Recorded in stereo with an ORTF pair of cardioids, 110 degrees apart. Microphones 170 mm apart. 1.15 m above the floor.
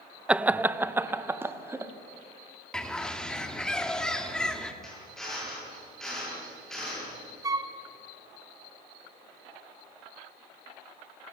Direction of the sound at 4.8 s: 5° left.